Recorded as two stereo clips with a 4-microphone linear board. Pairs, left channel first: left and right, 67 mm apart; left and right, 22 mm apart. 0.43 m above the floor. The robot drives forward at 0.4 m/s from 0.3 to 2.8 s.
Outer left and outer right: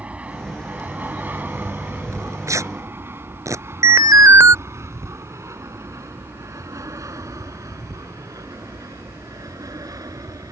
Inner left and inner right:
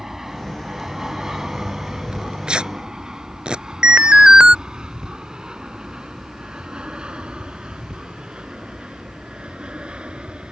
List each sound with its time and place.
0.0 s an aircraft: 20° right (ahead or behind); by 10.5 s 65° right (ahead or behind)
2.1 s tearing paper: 55° right (ahead or behind); by 3.6 s 50° right (ahead or behind)
3.8 s an alarm: 55° right (ahead or behind)